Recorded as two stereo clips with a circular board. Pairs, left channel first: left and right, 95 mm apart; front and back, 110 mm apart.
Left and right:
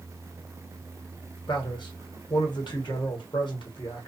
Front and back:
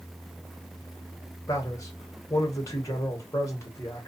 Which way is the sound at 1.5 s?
60° left.